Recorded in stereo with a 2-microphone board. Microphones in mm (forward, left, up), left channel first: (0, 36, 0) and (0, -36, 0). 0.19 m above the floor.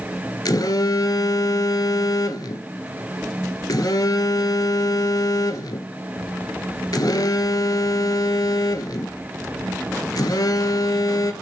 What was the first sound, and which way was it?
A phone buzzing, 60° left (ahead or behind).